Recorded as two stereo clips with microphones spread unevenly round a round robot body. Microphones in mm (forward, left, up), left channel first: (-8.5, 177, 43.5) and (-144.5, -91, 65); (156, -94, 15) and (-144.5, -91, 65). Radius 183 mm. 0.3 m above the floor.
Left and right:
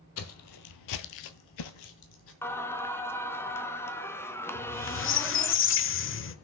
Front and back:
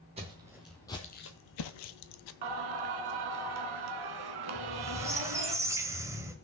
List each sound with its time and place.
0.2 s footsteps: 110° left, 0.9 m; by 2.3 s 5° left, 0.7 m
2.4 s singing: 145° left, 0.7 m
4.5 s a squeak: 90° left, 0.6 m